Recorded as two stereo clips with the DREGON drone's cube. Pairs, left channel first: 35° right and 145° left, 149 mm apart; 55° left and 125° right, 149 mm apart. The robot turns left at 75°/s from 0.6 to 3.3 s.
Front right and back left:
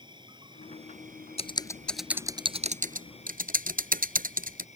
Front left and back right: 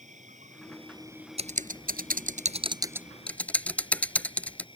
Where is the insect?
155° right; by 4.8 s straight ahead.